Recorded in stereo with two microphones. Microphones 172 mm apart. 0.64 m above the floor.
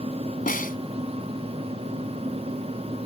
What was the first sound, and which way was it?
A snare drum, 55° left (ahead or behind).